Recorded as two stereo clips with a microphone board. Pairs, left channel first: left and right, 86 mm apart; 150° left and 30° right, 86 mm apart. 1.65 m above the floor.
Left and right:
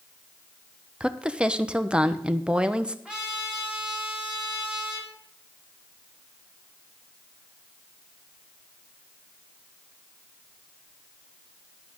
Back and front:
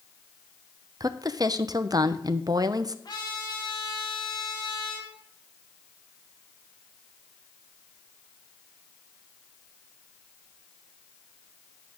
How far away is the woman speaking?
About 0.7 m.